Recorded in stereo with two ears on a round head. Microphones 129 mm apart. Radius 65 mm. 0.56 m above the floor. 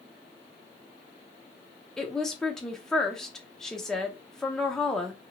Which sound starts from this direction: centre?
A woman speaking, at 2.0 s.